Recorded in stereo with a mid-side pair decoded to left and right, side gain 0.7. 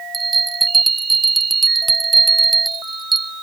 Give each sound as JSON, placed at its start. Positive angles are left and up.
{"t": 0.1, "sound": "a bell", "azimuth_deg": -15}